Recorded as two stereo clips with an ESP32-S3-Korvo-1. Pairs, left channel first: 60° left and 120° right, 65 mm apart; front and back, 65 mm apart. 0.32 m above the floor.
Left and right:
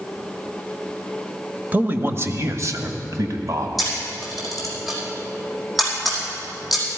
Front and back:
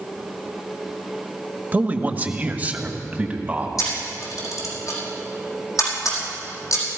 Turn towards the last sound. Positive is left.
turn(degrees=-30)